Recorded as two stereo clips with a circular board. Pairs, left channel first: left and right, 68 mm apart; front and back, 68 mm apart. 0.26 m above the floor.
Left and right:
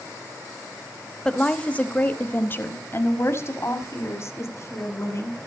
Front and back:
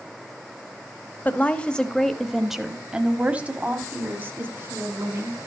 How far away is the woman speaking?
About 1.1 m.